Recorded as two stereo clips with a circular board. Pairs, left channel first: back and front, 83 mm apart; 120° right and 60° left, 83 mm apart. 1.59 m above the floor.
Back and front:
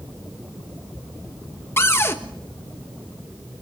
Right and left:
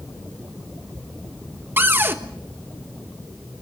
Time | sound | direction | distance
1.8 | a cupboard door | 120° left | 1.3 m